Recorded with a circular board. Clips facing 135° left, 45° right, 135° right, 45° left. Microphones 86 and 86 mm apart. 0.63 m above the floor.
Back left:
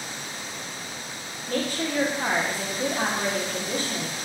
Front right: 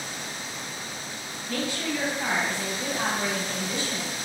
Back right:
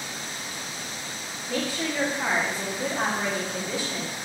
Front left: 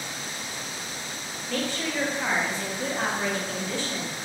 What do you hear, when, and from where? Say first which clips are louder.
1.5 s a woman speaking: back left 2 dB, back right 1 dB; 150° left, 0.7 m